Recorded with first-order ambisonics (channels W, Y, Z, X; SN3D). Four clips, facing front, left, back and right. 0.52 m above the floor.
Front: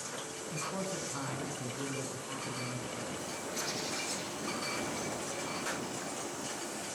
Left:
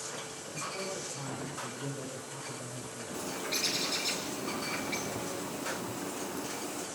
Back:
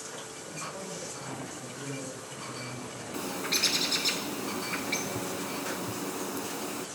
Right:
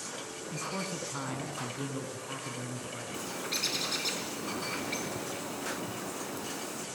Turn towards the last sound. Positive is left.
turn(degrees=-175)